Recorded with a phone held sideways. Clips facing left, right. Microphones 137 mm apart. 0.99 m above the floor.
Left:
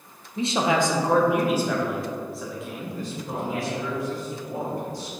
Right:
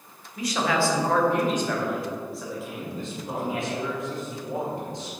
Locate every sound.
0.4 s a man speaking: 25° left (ahead or behind), 0.8 m; by 3.8 s 5° right (ahead or behind), 2 m
2.8 s a man speaking: 25° right (ahead or behind), 1.6 m